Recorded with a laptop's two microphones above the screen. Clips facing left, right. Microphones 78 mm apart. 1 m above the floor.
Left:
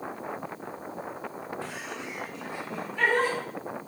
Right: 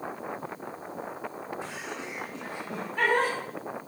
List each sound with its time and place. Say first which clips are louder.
1.6 s laughter: even; 15° right (ahead or behind), 1.8 m; by 3.3 s 60° right (ahead or behind), 1.6 m